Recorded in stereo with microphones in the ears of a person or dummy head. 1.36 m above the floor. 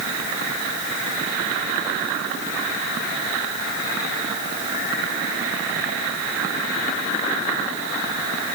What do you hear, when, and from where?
Only background noise.